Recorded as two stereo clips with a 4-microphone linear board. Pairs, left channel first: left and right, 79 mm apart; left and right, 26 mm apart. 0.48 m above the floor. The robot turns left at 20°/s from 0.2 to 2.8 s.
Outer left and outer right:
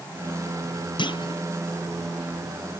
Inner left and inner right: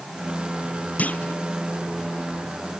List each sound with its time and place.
1.0 s a clunk: 65° left (ahead or behind); by 1.4 s 75° left (ahead or behind)